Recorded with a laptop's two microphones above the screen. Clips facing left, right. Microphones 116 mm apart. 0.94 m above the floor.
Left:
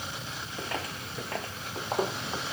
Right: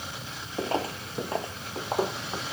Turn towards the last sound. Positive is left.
turn(degrees=0)  # may be behind; listen again after turning